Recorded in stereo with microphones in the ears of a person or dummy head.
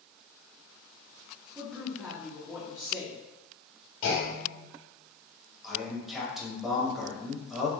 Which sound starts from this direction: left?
A clunk, at 4.0 s.